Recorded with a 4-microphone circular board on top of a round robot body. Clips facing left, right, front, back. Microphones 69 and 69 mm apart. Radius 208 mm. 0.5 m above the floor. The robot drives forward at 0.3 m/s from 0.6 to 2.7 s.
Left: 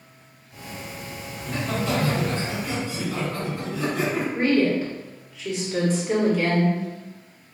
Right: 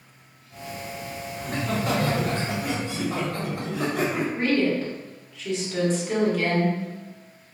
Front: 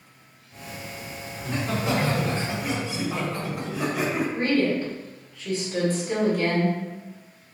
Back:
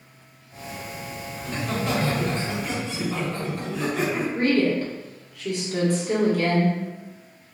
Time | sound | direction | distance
1.4 | laughter | 65° right | 1.7 m
4.3 | a woman speaking | 175° left | 1.6 m